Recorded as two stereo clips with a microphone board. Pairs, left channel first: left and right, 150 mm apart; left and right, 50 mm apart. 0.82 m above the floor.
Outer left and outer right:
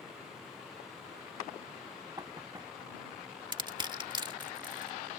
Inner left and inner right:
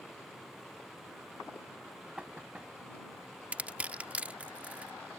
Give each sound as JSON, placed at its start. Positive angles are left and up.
{"t": 2.2, "sound": "knocking", "side_deg": -25}
{"t": 3.5, "sound": "crushing", "side_deg": -30}